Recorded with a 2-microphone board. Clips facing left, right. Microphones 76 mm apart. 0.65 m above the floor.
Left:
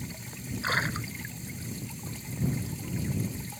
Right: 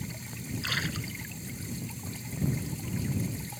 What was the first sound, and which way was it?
A splash, 35° left (ahead or behind).